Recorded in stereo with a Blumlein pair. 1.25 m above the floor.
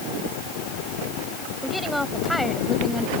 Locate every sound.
1.6 s a woman speaking: straight ahead; by 3.1 s 5° left